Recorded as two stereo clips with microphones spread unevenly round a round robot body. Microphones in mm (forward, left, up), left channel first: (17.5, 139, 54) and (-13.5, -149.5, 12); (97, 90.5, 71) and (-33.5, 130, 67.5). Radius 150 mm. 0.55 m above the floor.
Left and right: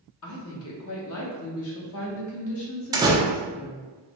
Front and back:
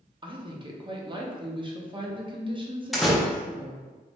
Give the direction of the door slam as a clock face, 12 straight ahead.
4 o'clock.